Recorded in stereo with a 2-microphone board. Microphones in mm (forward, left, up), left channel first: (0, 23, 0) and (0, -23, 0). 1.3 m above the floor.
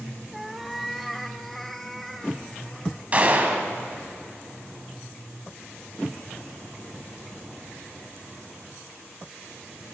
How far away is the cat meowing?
About 1.0 m.